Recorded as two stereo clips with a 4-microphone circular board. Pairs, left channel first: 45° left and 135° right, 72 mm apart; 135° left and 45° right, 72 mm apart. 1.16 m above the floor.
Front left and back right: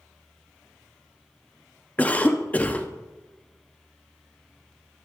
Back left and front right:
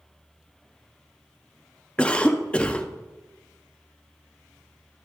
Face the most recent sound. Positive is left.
turn(degrees=80)